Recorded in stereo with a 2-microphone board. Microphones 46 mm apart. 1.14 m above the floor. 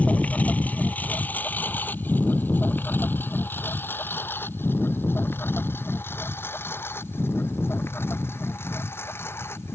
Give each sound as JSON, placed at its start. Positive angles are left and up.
{"t": 0.0, "sound": "a lawn mower", "side_deg": 35}